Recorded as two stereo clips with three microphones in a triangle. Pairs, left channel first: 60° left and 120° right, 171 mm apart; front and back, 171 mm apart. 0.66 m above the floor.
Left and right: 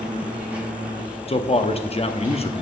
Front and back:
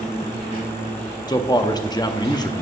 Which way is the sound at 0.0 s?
40° right.